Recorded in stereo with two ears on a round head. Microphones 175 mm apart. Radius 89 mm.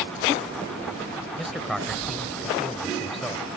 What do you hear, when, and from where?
1.4 s a man speaking: centre (ahead or behind)